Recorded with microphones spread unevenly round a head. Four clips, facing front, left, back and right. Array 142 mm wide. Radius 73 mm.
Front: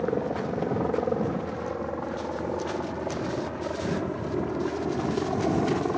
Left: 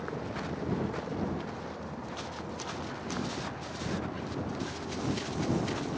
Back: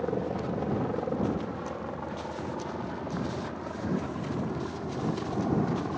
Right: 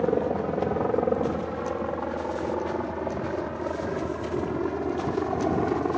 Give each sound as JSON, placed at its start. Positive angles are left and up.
{"t": 0.0, "sound": "a helicopter", "azimuth_deg": -75}